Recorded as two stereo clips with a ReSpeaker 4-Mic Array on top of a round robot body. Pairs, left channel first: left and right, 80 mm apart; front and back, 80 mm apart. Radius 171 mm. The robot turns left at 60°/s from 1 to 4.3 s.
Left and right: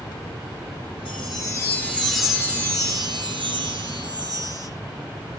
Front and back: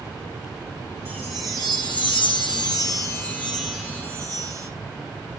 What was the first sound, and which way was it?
A chime, 65° left.